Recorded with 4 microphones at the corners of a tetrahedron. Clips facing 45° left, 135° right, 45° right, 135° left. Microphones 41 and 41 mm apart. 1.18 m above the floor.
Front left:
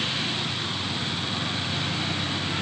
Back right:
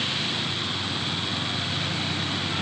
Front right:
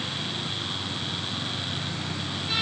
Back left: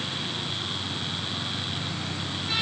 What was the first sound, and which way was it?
Only background noise.